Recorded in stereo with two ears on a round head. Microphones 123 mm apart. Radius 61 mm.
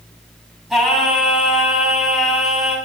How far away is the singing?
About 2.5 m.